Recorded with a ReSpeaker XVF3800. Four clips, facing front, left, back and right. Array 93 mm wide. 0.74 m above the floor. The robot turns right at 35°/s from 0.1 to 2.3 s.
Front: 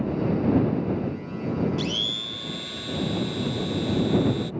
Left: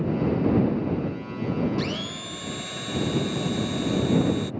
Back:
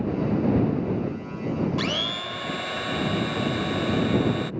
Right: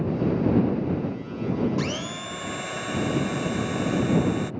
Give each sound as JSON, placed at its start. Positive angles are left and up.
{"t": 1.8, "sound": "a blender", "azimuth_deg": -170}